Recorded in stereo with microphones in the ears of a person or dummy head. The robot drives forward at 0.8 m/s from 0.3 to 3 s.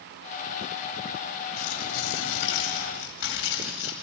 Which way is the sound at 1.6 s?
65° left (ahead or behind).